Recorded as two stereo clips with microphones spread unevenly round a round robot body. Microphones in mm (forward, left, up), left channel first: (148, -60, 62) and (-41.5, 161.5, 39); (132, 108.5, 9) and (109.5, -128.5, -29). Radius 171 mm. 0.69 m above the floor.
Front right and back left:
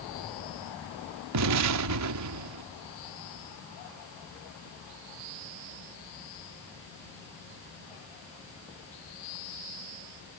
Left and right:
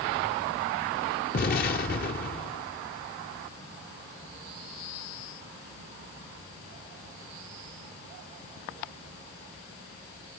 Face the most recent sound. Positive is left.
turn(degrees=150)